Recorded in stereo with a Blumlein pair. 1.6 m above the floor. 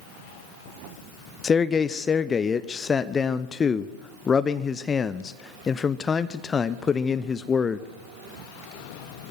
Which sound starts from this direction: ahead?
A man speaking, at 1.4 s.